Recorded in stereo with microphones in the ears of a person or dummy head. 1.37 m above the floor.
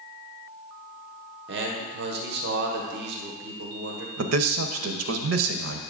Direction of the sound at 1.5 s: 55° right (ahead or behind).